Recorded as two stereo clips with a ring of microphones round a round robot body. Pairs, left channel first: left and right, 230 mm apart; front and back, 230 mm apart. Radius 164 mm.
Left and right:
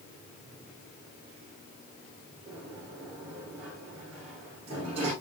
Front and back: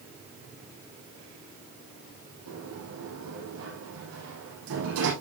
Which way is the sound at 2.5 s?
165° right.